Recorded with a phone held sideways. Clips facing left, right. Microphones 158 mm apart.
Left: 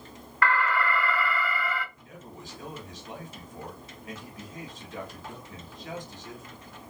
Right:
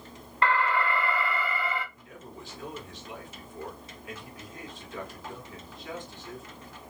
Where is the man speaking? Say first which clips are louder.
Even; 40° left (ahead or behind), 1.7 m.